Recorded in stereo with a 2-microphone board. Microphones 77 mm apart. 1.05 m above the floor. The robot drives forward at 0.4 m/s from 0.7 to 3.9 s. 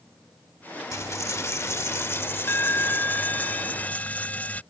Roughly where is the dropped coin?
Left.